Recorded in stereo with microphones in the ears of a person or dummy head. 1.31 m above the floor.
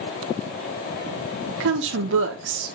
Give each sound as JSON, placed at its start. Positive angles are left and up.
{"t": 1.6, "sound": "a woman speaking", "side_deg": -65, "distance_m": 1.1}